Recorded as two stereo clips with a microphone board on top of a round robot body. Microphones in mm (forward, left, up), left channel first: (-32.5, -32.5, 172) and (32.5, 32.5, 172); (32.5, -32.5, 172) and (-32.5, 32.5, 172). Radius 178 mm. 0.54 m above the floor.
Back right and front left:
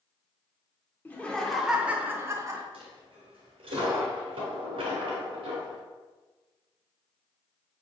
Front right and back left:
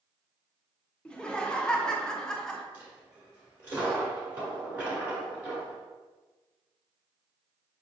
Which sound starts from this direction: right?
Laughter, at 1.1 s.